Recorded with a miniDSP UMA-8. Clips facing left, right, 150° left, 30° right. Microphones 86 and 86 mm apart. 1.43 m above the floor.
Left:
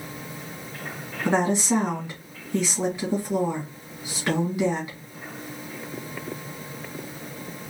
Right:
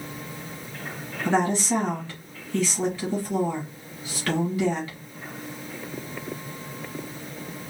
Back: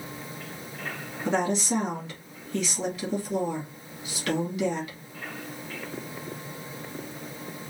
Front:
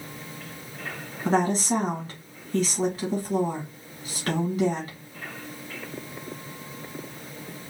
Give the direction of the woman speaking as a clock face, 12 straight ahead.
11 o'clock.